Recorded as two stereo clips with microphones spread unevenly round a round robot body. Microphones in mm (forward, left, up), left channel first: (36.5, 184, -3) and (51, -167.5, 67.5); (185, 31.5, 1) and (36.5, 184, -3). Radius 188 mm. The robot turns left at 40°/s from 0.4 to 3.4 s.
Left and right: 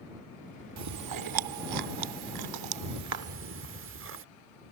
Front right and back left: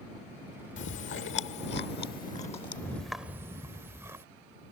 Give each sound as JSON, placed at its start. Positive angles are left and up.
{"t": 0.8, "sound": "chewing", "azimuth_deg": -40}